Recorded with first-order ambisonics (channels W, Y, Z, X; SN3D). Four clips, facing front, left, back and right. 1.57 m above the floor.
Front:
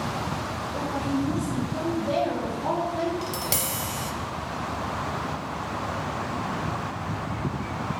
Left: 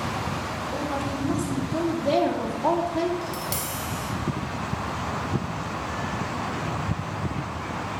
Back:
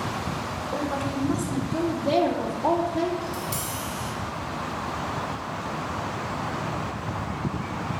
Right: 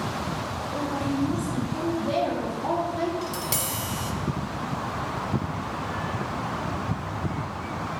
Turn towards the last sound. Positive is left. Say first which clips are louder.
# right 1 dB, front 2 dB
turn(degrees=-10)